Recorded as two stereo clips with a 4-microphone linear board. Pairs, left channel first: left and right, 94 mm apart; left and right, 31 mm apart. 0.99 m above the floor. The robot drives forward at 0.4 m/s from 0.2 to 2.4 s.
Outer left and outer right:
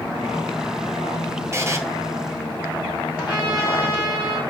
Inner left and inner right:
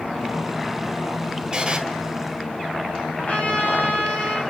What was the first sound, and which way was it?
A buzzer, 30° right (ahead or behind).